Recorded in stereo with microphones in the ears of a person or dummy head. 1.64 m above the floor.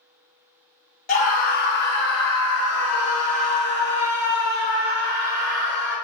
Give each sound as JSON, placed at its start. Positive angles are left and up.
{"t": 1.1, "sound": "a scream", "side_deg": 50, "distance_m": 1.0}